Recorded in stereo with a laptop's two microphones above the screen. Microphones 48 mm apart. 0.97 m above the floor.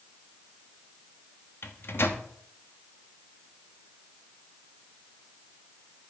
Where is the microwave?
60° left (ahead or behind), 1.2 m.